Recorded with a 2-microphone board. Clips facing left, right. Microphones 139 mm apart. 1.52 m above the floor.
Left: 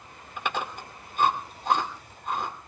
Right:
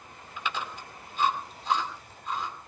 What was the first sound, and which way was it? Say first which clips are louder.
Chewing: left 3 dB; 50° left (ahead or behind).